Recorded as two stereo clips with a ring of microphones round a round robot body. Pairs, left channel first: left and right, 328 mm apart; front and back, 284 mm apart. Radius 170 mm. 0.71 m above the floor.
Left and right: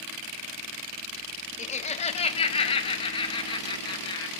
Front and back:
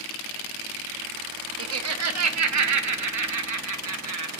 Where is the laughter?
155° left, 1.0 m; by 4.3 s 165° left, 2.5 m.